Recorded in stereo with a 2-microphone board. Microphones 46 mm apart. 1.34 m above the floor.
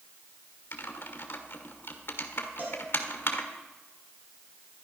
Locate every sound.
0.7 s typing on a keyboard: 50° left (ahead or behind), 1.4 m
2.6 s a cowbell: 45° right (ahead or behind), 4.5 m